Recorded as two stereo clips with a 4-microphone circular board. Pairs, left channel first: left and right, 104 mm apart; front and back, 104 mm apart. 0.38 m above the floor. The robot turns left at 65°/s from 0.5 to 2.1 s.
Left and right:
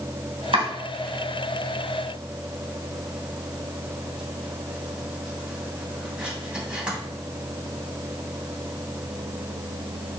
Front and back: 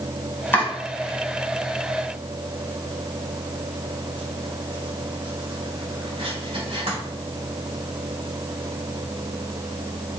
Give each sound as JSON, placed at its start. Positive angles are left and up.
{"t": 0.5, "sound": "chopping", "azimuth_deg": -70, "distance_m": 3.0}